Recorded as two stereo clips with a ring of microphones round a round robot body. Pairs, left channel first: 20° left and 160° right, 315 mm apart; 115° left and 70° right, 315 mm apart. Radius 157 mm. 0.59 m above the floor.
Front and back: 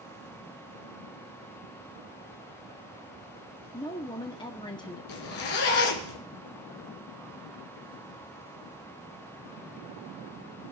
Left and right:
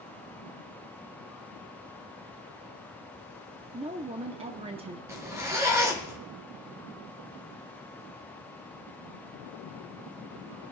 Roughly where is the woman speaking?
Ahead right.